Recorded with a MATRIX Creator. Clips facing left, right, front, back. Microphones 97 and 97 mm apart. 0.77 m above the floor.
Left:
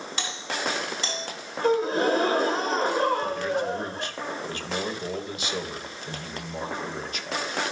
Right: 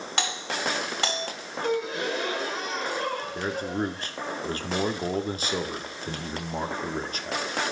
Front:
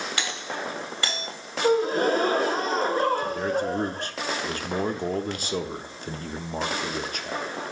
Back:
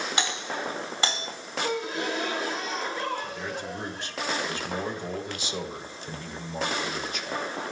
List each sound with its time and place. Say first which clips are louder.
0.2 s a doorbell: right 2 dB, back 1 dB; 110° right, 2.5 m
1.6 s a gasp: left 6 dB, front 10 dB; 40° left, 0.7 m
3.4 s a man speaking: left 2 dB, front 9 dB; 40° right, 1.7 m